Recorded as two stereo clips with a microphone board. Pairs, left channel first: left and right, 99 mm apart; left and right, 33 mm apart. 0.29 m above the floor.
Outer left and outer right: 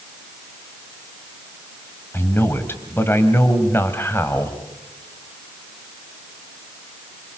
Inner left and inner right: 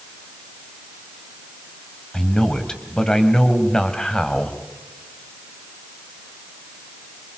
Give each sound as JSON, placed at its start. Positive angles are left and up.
{"t": 2.1, "sound": "a man speaking", "side_deg": 20, "distance_m": 2.0}